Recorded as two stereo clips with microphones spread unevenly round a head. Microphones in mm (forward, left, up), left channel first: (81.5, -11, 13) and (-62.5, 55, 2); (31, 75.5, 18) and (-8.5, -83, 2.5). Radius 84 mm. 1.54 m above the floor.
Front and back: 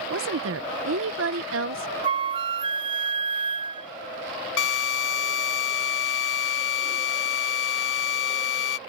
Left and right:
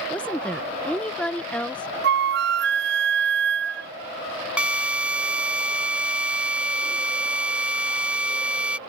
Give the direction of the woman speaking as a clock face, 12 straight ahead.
7 o'clock.